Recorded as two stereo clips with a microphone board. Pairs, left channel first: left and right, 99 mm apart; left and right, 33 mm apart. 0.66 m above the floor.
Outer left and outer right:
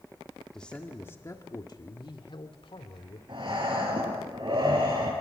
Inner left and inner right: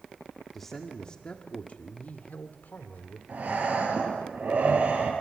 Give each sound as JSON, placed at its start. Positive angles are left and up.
{"t": 0.5, "sound": "a man speaking", "side_deg": 5, "distance_m": 1.8}
{"t": 3.3, "sound": "breathing", "side_deg": -55, "distance_m": 7.5}